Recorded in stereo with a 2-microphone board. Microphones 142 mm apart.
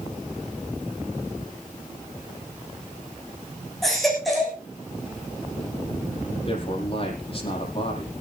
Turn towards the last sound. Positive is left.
turn(degrees=40)  # may be behind; listen again after turning